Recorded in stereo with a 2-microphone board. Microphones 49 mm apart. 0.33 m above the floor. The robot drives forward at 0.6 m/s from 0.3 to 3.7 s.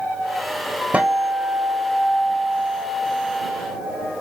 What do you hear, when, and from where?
0.9 s a guitar: 30° right (ahead or behind), 1.5 m; by 4.1 s 15° right (ahead or behind), 2.5 m